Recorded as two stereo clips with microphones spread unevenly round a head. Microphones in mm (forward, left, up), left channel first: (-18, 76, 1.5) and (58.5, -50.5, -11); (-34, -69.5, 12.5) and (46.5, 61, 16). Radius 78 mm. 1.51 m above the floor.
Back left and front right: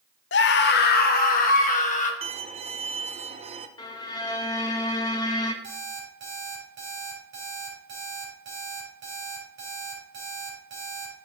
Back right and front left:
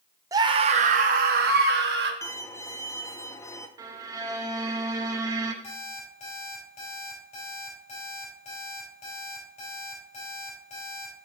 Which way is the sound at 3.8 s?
105° left.